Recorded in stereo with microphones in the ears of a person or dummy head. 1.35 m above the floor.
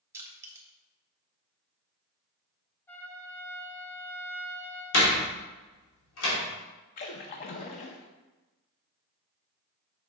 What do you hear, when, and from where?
0.1 s crushing: 15° right (ahead or behind), 1.8 m
2.9 s a trumpet: 5° left (ahead or behind), 1.3 m
4.9 s a door slam: 70° left (ahead or behind), 2.5 m
7.0 s a splash: 30° left (ahead or behind), 0.6 m